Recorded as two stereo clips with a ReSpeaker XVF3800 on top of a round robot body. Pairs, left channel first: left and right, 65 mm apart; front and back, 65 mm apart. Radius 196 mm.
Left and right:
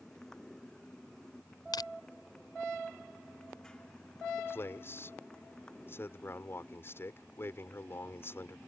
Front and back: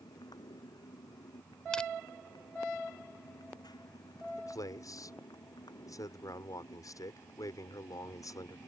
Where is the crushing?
80° left.